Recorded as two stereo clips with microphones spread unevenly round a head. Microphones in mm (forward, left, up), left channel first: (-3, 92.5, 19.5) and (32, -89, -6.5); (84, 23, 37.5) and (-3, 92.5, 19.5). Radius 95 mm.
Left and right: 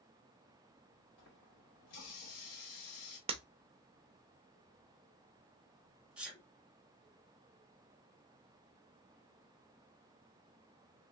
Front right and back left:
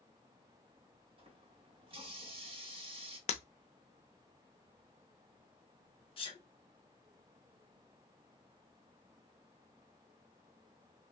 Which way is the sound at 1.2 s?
100° left.